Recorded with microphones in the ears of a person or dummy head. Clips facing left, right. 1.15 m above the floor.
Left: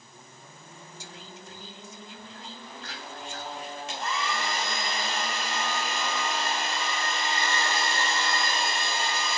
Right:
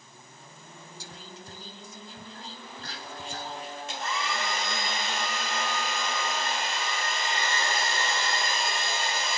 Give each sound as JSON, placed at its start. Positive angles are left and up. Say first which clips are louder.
{"t": 1.0, "sound": "whispering", "louder": "even", "side_deg": -35, "distance_m": 0.5}
{"t": 3.9, "sound": "a hair dryer", "louder": "left 1 dB", "side_deg": 55, "distance_m": 2.0}